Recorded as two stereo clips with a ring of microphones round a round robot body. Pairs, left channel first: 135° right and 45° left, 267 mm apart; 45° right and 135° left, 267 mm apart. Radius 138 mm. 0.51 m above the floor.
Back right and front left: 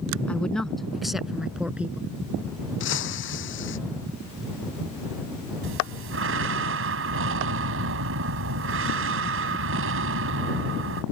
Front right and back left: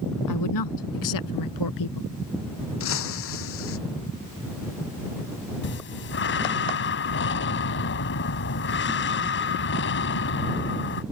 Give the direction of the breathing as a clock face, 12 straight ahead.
12 o'clock.